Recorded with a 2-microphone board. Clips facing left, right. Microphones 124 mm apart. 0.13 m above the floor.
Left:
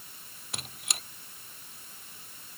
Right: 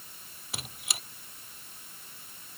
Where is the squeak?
Centre (ahead or behind).